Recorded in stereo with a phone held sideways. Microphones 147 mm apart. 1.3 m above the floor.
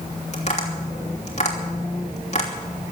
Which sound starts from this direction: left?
Tapping, at 0.3 s.